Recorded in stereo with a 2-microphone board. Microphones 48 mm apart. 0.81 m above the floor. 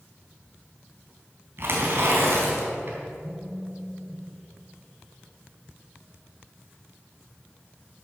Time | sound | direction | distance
1.6 | tearing paper | 55° right (ahead or behind) | 3.5 m
3.2 | a phone buzzing | 20° left (ahead or behind) | 1.4 m